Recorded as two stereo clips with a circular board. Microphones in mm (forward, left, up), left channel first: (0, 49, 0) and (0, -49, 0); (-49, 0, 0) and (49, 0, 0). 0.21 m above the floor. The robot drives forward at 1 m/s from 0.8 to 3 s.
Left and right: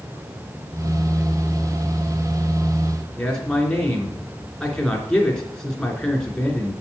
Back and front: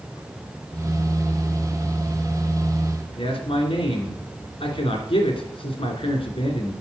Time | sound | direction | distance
3.2 | a man speaking | 175° left | 3 m